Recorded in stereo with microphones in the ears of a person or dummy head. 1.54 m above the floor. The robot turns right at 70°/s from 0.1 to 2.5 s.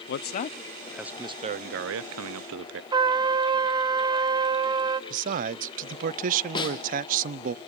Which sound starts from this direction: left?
A snare drum, at 6.5 s.